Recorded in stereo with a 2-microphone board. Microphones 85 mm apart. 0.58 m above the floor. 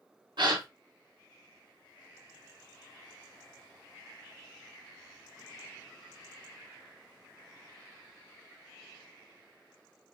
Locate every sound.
0.4 s a gasp: 60° right (ahead or behind), 0.8 m